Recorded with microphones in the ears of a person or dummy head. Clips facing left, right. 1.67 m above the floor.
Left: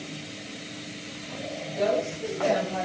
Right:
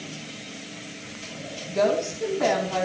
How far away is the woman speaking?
About 3.5 m.